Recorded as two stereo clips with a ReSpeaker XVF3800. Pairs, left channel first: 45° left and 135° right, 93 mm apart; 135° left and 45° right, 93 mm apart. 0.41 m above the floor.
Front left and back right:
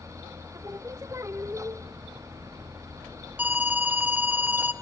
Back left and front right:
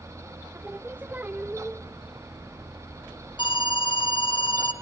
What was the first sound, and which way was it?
Singing, 105° right.